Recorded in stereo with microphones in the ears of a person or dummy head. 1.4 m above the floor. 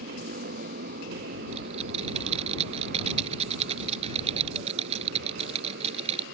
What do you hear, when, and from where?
0.0 s a motorcycle: 55° right (ahead or behind); by 6.3 s 65° right (ahead or behind)
1.5 s typing on a keyboard: 40° right (ahead or behind)